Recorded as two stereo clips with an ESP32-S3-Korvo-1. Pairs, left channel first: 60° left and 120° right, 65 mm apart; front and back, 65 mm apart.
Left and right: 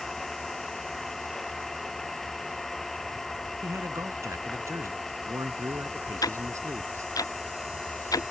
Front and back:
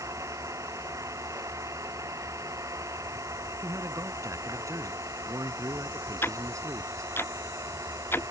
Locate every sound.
0.0 s an engine running: 145° left
3.6 s a man speaking: 155° right
6.2 s ticking: 55° left